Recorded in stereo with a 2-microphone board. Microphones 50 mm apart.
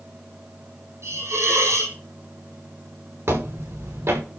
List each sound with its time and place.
1.0 s a hiss: 75° right (ahead or behind), 5.5 m
3.3 s footsteps: 60° right (ahead or behind), 5 m